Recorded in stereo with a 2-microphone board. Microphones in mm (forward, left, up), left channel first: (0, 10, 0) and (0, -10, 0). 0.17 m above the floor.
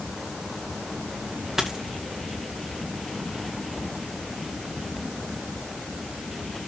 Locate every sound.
1.6 s a dropped coin: 25° right (ahead or behind), 2 m